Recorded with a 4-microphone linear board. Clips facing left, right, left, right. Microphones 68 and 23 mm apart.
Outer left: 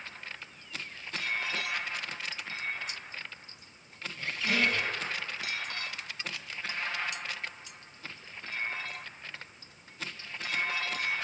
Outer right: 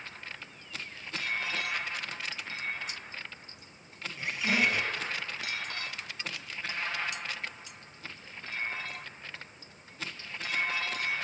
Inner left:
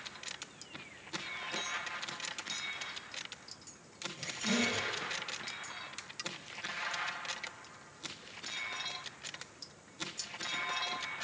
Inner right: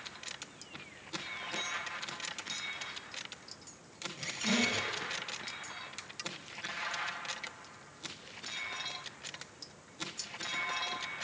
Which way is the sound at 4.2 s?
15° right (ahead or behind).